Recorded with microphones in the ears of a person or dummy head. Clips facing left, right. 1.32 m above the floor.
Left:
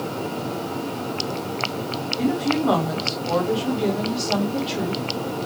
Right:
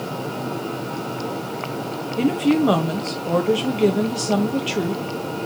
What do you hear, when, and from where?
2.2 s a woman speaking: 35° right (ahead or behind), 1.6 m